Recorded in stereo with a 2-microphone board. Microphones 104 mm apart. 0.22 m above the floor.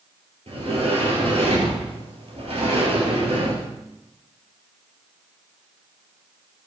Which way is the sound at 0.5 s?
80° right.